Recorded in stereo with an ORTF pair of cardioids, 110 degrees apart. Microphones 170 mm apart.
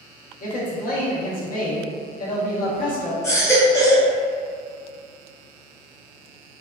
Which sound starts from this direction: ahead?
A baby crying, at 3.2 s.